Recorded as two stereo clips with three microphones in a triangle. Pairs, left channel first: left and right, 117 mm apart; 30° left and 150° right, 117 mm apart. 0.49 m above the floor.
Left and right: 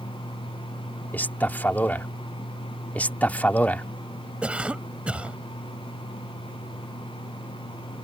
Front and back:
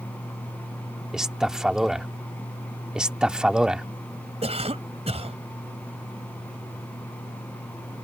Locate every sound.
1.1 s a man speaking: 130° left
3.0 s a man speaking: 140° left
4.4 s a cough: 170° right